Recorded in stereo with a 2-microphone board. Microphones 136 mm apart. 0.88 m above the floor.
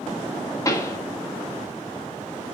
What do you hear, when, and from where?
0.7 s a pop: 25° left (ahead or behind), 1.9 m